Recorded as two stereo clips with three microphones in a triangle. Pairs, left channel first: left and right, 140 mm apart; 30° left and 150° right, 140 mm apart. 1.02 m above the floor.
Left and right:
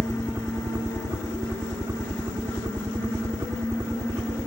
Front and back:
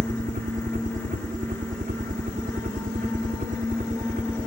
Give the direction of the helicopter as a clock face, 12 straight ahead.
5 o'clock.